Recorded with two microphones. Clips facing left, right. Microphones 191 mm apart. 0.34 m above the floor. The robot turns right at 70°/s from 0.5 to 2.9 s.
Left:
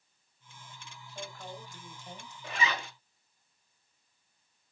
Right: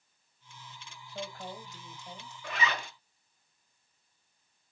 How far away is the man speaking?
About 1.7 m.